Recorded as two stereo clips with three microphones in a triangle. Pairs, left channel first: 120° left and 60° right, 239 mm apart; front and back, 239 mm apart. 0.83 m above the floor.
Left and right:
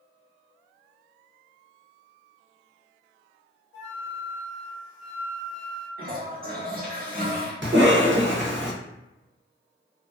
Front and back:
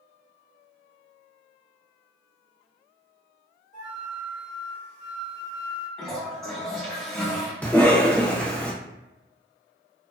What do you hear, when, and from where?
3.7 s a flute: 50° left, 1.3 m
6.0 s a toilet flushing: 90° right, 0.8 m
7.6 s a cough: 80° right, 0.8 m